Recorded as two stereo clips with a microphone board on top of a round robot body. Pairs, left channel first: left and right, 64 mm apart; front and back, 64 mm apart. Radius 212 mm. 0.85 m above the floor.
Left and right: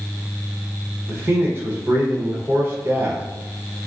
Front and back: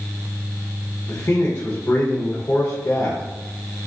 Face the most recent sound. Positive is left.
turn(degrees=-45)